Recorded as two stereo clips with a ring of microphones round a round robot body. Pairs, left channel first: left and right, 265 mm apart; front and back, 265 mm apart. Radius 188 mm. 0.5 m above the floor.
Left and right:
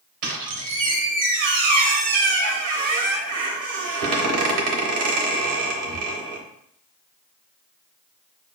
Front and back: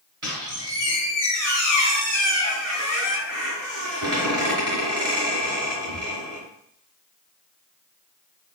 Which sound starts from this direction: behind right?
A squeak, at 0.2 s.